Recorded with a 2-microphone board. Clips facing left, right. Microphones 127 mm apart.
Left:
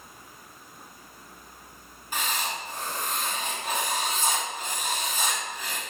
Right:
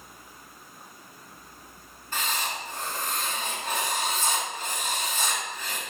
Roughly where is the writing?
Centre.